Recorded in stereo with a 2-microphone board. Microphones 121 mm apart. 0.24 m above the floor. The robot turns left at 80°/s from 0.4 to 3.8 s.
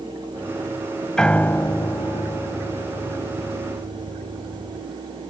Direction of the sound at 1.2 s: 170° left.